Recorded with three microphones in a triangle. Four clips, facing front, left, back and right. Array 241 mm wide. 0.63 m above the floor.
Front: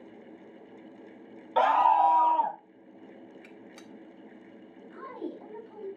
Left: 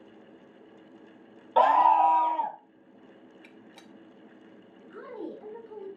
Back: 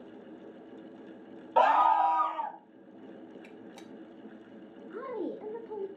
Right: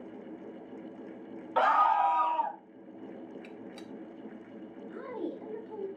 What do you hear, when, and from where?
1.6 s a scream: 110° left, 0.6 m; by 2.6 s 5° left, 0.7 m
3.4 s a gunshot: 155° left, 1.0 m
4.9 s a woman speaking: 175° right, 2.5 m